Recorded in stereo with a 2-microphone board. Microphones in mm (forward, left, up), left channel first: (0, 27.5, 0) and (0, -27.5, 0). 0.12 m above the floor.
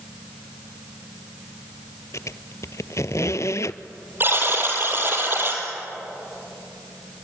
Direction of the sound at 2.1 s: 65° left (ahead or behind).